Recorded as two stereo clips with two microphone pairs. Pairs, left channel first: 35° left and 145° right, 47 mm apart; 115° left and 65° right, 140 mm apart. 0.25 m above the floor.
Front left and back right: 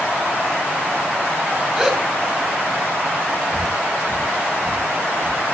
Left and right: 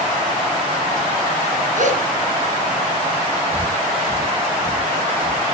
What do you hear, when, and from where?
1.8 s a gasp: 70° right, 3 m
3.5 s breathing: 145° right, 3 m